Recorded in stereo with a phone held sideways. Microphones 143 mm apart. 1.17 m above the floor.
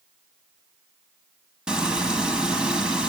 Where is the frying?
5° right (ahead or behind), 3.5 m.